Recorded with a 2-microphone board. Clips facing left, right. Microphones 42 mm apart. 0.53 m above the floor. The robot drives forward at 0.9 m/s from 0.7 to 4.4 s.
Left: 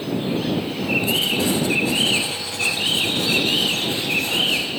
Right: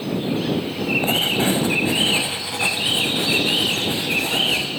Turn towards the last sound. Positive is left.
turn(degrees=-15)  # may be behind; listen again after turning